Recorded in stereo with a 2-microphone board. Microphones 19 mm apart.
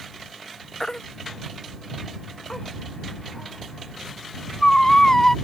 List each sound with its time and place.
0.8 s a baby crying: 30° left (ahead or behind)